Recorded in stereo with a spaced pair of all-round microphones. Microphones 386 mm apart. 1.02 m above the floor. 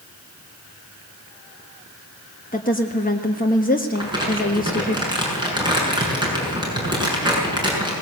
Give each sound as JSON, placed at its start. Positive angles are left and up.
{"t": 2.5, "sound": "a woman speaking", "side_deg": 20, "distance_m": 1.3}
{"t": 4.0, "sound": "crumpling", "side_deg": -10, "distance_m": 6.5}